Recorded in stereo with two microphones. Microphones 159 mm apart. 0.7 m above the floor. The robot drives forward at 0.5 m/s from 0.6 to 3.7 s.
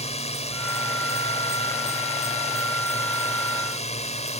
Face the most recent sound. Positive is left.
turn(degrees=45)  # may be behind; listen again after turning